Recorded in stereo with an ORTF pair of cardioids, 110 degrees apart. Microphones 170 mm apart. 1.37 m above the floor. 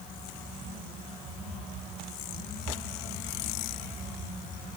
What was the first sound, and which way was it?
Only background noise.